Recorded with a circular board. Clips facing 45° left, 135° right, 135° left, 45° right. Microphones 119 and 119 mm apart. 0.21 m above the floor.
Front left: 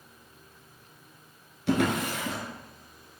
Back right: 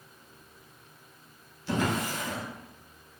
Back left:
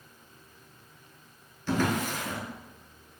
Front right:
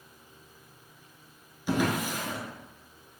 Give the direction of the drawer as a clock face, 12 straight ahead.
11 o'clock.